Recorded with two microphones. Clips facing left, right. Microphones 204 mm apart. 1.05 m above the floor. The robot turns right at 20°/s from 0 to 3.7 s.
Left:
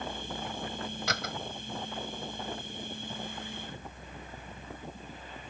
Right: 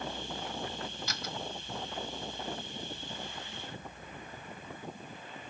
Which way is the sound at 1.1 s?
75° left (ahead or behind).